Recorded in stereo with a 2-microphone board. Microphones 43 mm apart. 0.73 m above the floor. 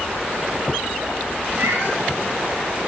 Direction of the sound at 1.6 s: 75° right (ahead or behind).